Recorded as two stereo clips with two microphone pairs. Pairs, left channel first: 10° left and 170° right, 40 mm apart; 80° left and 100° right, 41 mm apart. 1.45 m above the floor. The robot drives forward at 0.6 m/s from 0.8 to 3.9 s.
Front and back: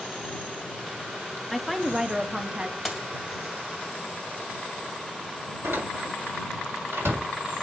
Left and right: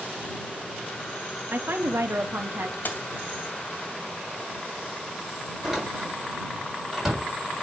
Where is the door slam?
170° left, 4.5 m.